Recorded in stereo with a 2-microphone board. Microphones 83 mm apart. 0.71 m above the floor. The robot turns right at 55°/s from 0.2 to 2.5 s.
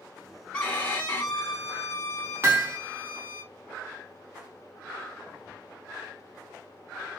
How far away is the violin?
About 1.1 m.